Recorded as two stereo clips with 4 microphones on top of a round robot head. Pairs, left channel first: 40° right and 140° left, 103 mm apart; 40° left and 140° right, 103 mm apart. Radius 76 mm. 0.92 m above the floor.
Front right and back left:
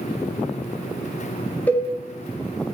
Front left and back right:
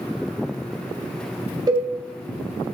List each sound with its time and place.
1.7 s a cowbell: 110° right, 0.6 m